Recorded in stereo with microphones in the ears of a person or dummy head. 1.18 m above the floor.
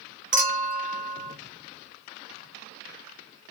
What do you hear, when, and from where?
0.3 s a clink: 40° right (ahead or behind), 0.7 m